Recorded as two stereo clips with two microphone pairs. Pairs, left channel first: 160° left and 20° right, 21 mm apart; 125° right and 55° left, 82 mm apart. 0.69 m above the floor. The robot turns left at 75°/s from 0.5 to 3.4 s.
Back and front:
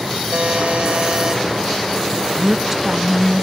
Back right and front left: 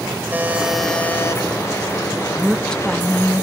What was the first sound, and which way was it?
A buzzer, 15° right.